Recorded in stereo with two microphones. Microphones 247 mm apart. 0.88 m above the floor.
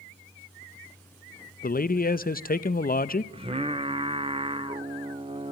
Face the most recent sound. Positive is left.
turn(degrees=-20)  # may be behind; listen again after turning